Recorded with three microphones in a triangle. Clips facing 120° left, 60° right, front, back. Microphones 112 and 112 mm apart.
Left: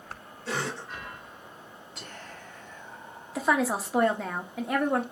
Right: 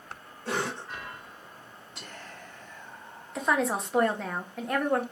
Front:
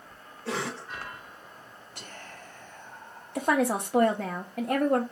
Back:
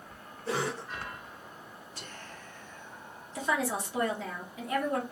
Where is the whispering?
30° left, 1.3 m.